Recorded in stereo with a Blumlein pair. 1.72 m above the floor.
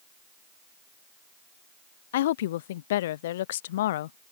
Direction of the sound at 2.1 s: 55° left.